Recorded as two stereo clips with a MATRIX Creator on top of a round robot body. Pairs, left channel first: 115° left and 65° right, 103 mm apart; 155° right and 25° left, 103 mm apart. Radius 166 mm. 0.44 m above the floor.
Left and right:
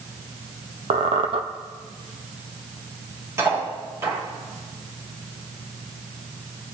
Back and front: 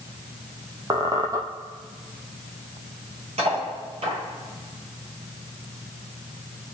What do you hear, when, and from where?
0.9 s a squeak: 40° right, 1.7 m
3.4 s cutlery clinking: 5° right, 9 m